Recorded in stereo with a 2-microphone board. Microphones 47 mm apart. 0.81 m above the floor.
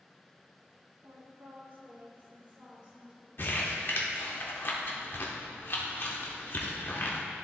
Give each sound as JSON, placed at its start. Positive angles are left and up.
{"t": 1.0, "sound": "a woman speaking", "side_deg": -70, "distance_m": 1.7}
{"t": 3.4, "sound": "crumpling", "side_deg": 50, "distance_m": 1.1}